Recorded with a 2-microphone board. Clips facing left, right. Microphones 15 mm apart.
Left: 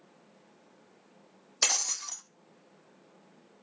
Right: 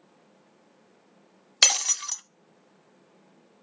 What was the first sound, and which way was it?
Breaking glass, 60° right (ahead or behind).